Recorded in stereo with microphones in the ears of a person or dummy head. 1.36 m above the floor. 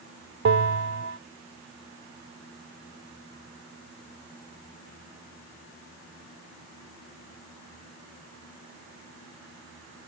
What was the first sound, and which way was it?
A bell, 75° right (ahead or behind).